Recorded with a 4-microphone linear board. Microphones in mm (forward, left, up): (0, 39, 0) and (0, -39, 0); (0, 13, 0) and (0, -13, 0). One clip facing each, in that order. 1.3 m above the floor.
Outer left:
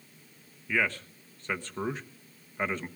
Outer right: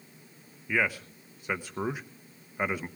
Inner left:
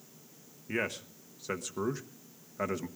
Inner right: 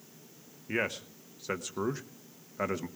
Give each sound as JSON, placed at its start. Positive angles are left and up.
{"t": 0.7, "sound": "a man speaking", "side_deg": -10, "distance_m": 1.0}